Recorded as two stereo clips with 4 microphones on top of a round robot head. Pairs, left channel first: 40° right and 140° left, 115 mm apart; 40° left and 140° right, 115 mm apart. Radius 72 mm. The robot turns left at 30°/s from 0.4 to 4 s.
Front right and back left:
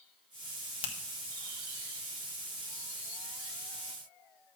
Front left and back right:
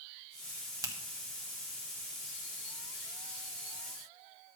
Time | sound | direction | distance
0.8 | a finger snap | 80° right | 1.9 m